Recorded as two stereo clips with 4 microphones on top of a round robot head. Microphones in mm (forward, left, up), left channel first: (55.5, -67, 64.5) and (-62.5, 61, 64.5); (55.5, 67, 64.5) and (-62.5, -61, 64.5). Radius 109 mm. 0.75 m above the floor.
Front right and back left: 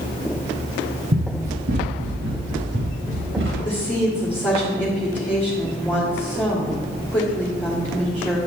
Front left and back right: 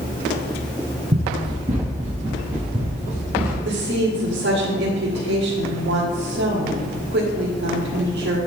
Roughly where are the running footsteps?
Behind.